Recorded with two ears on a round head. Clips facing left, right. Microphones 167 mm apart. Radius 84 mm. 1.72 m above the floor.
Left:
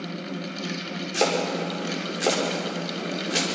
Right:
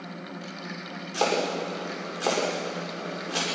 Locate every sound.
1.1 s chopping: 25° left (ahead or behind), 5.5 m